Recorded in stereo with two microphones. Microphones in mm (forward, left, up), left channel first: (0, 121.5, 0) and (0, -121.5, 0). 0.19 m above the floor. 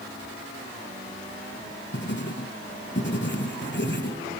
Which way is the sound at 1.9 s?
50° left (ahead or behind).